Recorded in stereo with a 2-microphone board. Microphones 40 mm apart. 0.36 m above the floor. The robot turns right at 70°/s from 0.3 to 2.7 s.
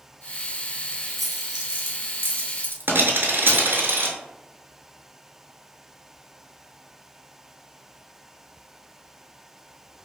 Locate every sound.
1.2 s a dropped coin: centre (ahead or behind), 0.6 m; by 4.1 s 65° right (ahead or behind), 0.6 m